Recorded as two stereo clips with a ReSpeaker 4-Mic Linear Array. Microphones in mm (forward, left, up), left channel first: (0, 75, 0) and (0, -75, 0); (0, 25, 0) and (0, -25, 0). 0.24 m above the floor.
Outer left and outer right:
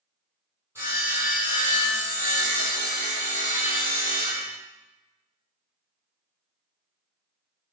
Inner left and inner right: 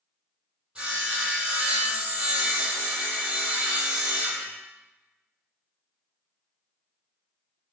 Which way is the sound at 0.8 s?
20° right (ahead or behind).